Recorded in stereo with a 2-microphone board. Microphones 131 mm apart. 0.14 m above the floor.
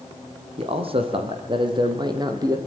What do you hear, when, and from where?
0.6 s a man speaking: 50° right (ahead or behind), 5.5 m; by 2.6 s 25° right (ahead or behind), 4.5 m